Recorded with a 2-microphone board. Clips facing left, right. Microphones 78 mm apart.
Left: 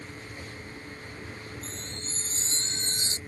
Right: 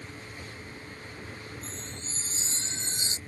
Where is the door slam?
I don't hear a door slam.